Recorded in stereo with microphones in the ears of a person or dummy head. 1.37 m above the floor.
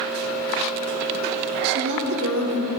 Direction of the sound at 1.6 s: 60° right (ahead or behind).